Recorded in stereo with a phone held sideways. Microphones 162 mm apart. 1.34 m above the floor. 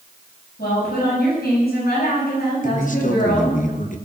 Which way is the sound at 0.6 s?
80° left.